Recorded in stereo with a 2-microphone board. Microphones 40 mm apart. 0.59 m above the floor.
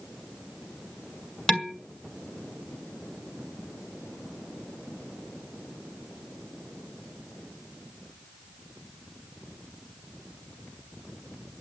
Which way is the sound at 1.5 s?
15° left (ahead or behind).